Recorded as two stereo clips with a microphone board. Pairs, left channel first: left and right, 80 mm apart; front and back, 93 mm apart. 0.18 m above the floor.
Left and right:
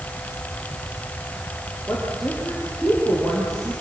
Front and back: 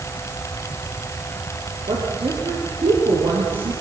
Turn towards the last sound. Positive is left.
turn(degrees=180)